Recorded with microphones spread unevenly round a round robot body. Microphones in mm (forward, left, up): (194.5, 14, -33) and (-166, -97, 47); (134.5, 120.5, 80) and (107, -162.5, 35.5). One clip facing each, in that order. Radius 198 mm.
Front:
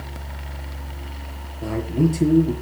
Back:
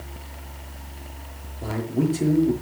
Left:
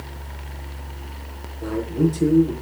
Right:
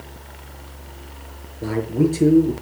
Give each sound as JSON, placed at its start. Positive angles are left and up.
{"t": 1.6, "sound": "a man speaking", "azimuth_deg": -40, "distance_m": 6.0}